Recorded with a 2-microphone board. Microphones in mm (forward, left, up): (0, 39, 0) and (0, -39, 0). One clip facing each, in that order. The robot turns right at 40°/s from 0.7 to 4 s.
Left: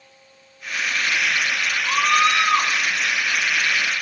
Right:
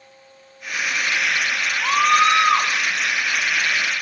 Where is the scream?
65° right, 5.5 m; by 2.7 s 30° right, 5.5 m.